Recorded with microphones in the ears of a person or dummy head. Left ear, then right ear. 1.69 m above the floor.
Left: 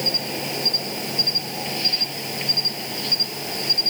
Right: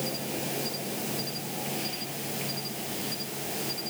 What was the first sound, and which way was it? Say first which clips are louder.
An insect: left 10 dB; 35° left (ahead or behind).